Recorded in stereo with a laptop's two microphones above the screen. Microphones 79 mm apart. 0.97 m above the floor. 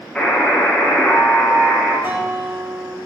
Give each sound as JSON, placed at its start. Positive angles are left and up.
{"t": 0.1, "sound": "a buzzer", "side_deg": 10, "distance_m": 3.0}
{"t": 2.0, "sound": "a guitar", "side_deg": -30, "distance_m": 3.0}